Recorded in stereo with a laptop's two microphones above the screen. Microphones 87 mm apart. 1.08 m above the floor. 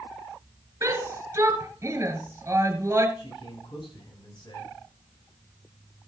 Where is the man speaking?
65° left (ahead or behind), 8 m.